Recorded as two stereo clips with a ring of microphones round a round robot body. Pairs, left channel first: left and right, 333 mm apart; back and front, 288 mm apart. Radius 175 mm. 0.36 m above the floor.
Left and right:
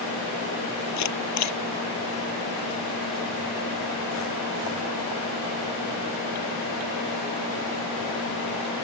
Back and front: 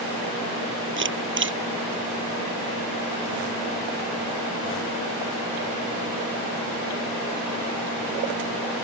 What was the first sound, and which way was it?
A camera shutter, 50° left.